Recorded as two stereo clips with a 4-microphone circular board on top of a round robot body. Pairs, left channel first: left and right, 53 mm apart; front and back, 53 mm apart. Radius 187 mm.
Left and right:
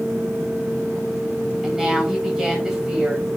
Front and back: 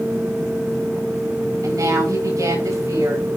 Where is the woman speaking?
175° right, 7.5 m.